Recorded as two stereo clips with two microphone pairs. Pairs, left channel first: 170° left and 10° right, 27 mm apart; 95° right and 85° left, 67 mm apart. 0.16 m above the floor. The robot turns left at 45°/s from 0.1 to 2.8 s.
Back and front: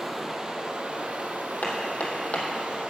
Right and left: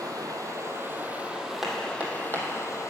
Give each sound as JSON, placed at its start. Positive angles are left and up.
{"t": 0.0, "sound": "running water", "azimuth_deg": 65, "distance_m": 1.1}
{"t": 1.6, "sound": "hammering", "azimuth_deg": 170, "distance_m": 1.6}